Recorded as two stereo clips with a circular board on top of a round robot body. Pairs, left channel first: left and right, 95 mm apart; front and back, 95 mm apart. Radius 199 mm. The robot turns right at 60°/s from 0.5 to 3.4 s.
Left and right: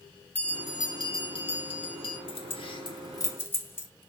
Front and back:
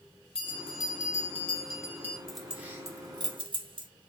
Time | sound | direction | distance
0.3 | a bell | 15° left | 1.0 m
2.3 | keys jangling | 85° left | 0.8 m